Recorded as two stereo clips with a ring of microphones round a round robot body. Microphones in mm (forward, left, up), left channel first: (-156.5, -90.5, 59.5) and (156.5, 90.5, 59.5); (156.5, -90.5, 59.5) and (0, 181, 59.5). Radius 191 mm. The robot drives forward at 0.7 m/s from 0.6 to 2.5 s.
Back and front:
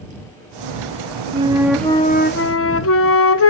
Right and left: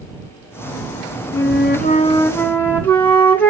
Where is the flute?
35° right, 0.9 m; by 3.5 s 140° right, 0.9 m.